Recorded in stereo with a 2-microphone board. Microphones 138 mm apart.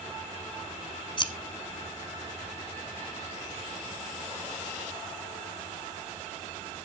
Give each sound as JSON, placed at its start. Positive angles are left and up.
{"t": 1.2, "sound": "scissors", "side_deg": 35, "distance_m": 0.9}